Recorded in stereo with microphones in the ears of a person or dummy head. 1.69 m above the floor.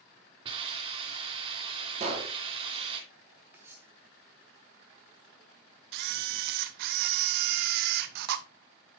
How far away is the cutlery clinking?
About 1.4 m.